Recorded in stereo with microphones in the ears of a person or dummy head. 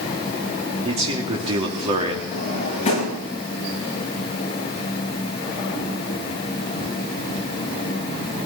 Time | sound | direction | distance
0.8 | a man speaking | 40° right (ahead or behind) | 2.5 m
2.3 | a drawer | 35° left (ahead or behind) | 6 m